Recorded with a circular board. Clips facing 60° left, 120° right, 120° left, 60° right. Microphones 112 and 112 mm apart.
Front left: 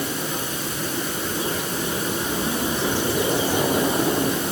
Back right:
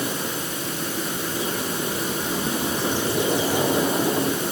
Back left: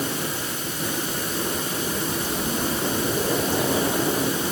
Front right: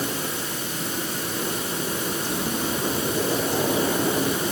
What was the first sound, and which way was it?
Only background noise.